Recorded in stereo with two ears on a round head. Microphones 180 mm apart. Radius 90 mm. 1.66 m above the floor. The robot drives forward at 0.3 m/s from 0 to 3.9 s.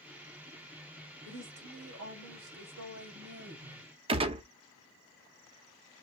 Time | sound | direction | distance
1.2 | a woman speaking | 80° right | 1.8 m
4.1 | a gunshot | 30° right (ahead or behind) | 0.8 m